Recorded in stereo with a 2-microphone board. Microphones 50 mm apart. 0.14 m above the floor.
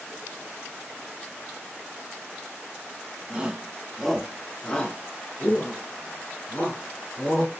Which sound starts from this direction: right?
A shout, at 3.3 s.